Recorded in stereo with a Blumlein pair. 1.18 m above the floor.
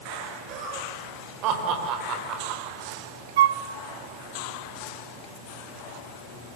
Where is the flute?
55° right, 0.8 m.